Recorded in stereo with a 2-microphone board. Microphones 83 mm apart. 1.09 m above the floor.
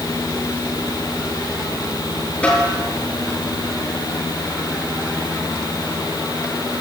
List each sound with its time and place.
2.4 s a snare drum: 15° left (ahead or behind), 7 m